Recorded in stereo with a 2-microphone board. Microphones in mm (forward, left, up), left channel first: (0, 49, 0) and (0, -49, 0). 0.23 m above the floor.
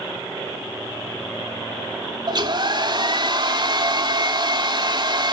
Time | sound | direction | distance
2.3 | a hair dryer | 45° right (ahead or behind) | 1.0 m